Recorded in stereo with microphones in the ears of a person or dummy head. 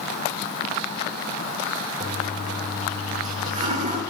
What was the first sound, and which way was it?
A toilet flushing, 45° right (ahead or behind).